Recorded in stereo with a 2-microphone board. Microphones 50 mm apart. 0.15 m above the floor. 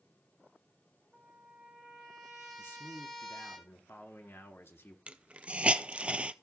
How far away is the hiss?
About 0.6 m.